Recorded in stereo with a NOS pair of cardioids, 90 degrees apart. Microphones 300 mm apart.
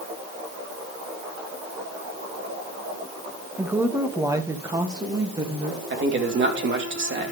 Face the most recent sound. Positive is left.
turn(degrees=-40)